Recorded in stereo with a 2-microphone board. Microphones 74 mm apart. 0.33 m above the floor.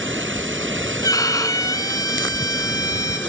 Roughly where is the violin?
Left.